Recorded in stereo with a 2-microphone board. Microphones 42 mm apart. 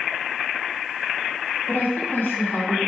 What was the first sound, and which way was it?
A woman speaking, 50° left (ahead or behind).